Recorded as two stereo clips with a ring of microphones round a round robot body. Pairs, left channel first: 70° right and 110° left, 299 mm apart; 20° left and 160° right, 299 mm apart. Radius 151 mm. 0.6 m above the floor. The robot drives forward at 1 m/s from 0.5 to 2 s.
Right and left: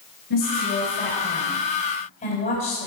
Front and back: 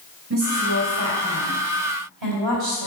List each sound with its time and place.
0.3 s a woman speaking: 105° right, 3 m; by 2.9 s 130° right, 3.5 m